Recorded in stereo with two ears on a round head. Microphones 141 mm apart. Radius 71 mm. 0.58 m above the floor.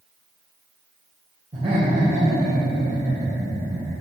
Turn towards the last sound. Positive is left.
turn(degrees=-30)  # may be behind; listen again after turning